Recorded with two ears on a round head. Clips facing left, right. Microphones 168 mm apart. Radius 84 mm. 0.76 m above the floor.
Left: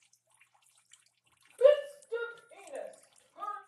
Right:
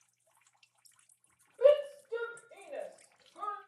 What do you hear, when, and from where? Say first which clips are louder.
1.6 s a shout: left 1 dB; 30° left (ahead or behind), 1.2 m; by 3.6 s 45° right (ahead or behind), 1.9 m